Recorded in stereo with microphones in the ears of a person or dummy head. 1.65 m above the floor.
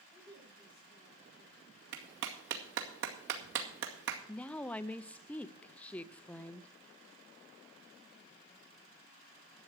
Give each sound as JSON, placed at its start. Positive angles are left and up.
{"t": 0.1, "sound": "a woman speaking", "side_deg": 35, "distance_m": 9.0}
{"t": 1.9, "sound": "a clap", "side_deg": -75, "distance_m": 2.0}
{"t": 4.3, "sound": "a woman speaking", "side_deg": 10, "distance_m": 0.5}